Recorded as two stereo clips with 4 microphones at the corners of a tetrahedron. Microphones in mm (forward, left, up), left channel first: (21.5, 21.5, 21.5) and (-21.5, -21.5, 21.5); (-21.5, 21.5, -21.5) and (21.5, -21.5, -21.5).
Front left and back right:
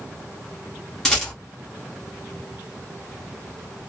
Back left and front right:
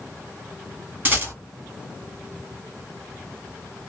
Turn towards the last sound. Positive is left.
turn(degrees=-30)